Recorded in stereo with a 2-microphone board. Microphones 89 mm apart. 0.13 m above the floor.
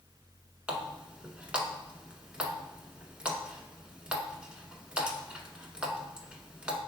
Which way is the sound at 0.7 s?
15° right (ahead or behind).